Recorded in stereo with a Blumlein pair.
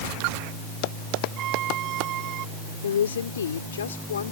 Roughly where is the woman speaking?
Ahead left.